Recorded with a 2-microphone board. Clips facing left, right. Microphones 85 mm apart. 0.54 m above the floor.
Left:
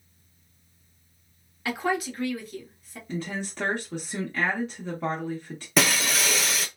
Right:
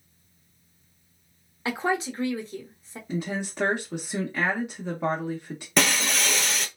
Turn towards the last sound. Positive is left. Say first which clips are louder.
# left 1 dB
turn(degrees=0)  # may be behind; listen again after turning